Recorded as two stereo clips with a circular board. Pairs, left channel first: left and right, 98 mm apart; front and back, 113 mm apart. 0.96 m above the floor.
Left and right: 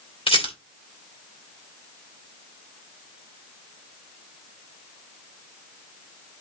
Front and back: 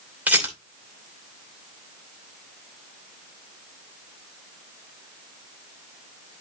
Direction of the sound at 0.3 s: 100° left.